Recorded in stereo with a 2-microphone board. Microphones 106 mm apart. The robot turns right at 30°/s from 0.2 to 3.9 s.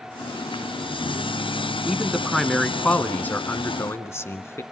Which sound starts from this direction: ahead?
A man speaking, at 1.9 s.